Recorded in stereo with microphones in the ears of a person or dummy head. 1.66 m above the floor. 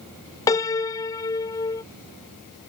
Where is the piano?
15° left (ahead or behind).